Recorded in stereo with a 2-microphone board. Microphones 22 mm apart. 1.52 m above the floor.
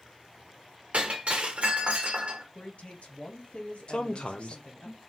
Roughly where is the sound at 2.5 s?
Left.